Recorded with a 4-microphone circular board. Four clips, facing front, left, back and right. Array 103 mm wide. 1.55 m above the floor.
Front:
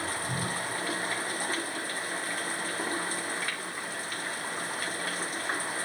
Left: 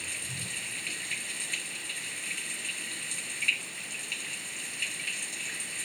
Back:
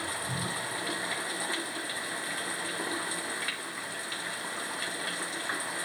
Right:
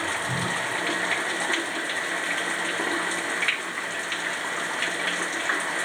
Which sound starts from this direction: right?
Running water, at 0.0 s.